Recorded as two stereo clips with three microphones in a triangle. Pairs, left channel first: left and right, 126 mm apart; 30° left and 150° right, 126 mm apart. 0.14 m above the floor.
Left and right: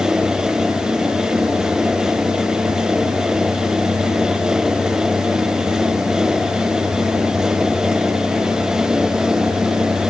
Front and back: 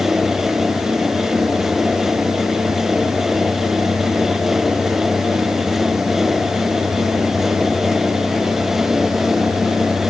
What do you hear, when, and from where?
Only background noise.